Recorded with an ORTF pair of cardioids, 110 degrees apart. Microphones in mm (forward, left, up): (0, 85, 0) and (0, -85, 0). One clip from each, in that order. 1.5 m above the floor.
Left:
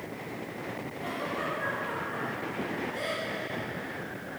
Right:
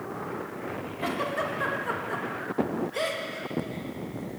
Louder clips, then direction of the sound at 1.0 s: Right 5 dB; 65° right.